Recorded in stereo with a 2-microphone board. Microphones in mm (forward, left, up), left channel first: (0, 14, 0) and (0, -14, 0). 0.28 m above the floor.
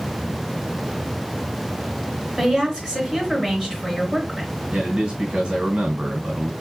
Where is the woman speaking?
15° right (ahead or behind), 3.5 m.